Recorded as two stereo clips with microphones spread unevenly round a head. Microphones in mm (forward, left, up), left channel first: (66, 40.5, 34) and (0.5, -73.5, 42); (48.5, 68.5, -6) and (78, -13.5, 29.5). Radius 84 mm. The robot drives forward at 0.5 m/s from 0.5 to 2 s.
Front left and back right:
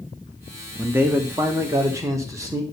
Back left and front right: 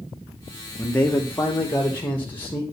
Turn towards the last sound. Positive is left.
turn(degrees=170)